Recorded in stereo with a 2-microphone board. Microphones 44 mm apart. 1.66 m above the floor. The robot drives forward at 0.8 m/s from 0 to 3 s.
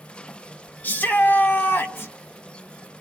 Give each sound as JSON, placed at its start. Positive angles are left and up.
{"t": 0.8, "sound": "a shout", "side_deg": 40, "distance_m": 2.5}